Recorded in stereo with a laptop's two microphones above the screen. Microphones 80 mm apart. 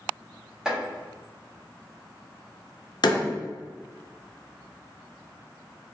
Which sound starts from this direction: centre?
Chopping, at 0.7 s.